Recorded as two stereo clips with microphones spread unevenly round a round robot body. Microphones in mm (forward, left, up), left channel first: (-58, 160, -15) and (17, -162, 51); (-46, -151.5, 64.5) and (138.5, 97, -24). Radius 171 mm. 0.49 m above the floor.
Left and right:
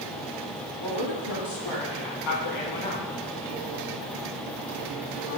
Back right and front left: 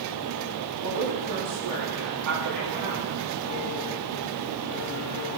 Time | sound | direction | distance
0.8 | a woman speaking | 100° left | 4 m